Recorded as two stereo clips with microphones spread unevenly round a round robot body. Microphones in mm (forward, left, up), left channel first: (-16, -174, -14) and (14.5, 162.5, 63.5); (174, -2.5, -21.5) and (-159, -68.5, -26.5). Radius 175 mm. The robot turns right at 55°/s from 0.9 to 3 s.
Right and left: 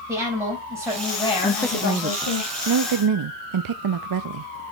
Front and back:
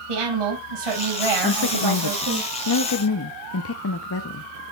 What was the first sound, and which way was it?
A woman speaking, 170° left.